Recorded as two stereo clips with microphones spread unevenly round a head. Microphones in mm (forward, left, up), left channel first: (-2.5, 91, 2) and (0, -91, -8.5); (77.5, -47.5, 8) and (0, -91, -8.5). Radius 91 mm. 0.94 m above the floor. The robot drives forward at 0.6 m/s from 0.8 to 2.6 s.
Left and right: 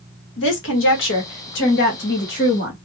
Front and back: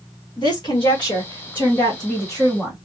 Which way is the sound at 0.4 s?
85° left.